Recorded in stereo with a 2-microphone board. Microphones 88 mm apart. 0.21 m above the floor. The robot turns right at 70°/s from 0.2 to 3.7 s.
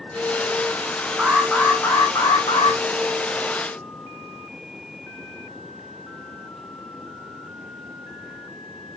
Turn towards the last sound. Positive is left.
turn(degrees=160)